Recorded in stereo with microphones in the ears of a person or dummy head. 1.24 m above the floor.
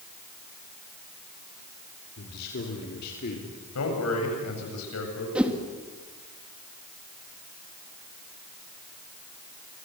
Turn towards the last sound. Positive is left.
turn(degrees=-10)  # may be behind; listen again after turning